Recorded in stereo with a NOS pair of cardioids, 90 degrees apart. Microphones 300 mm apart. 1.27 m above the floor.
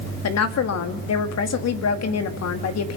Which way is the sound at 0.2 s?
60° left.